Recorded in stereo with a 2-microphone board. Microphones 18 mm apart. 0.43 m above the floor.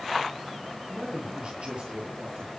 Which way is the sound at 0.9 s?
50° right (ahead or behind).